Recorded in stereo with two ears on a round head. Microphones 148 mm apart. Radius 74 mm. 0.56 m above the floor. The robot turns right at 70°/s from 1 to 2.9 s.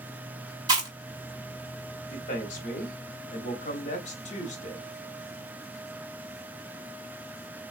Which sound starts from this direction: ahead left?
A man speaking, at 2.1 s.